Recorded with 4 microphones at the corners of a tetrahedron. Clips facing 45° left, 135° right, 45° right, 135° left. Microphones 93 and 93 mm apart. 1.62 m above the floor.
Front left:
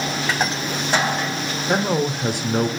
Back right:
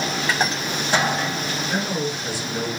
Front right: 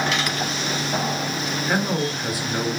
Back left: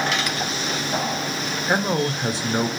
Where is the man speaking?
70° left, 0.8 m.